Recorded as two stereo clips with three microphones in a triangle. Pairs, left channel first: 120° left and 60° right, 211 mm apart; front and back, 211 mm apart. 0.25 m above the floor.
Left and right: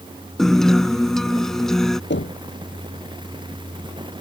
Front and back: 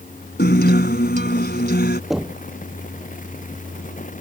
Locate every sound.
0.4 s a guitar: 30° left
2.1 s knocking: 90° left